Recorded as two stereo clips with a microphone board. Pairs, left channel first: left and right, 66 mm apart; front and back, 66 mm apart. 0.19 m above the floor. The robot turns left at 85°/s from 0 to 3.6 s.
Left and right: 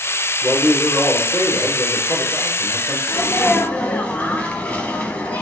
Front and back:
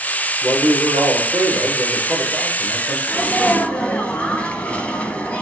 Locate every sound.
0.4 s a man speaking: 145° right, 4 m; by 3.0 s 5° right, 4 m
3.1 s a sneeze: 90° left, 1.4 m; by 5.4 s 45° left, 1.4 m